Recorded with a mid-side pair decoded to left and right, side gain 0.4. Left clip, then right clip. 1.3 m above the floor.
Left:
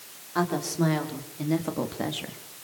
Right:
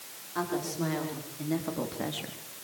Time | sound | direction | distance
0.3 | a woman speaking | 50° left | 4.5 m